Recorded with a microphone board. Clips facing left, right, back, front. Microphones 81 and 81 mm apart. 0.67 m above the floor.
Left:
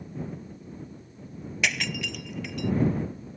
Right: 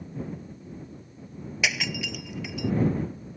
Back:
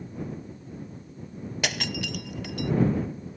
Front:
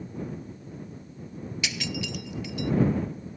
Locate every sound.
1.6 s breaking glass: 175° right